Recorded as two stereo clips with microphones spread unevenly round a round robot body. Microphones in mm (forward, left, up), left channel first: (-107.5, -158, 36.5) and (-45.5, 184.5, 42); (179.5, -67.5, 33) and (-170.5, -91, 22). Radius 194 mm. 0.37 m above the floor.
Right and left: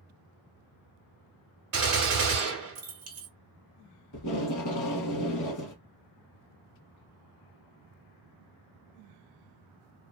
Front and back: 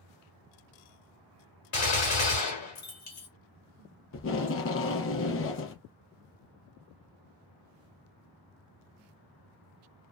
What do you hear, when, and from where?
1.7 s a gunshot: 40° left, 1.1 m
4.1 s tape being pulled: 50° right, 0.6 m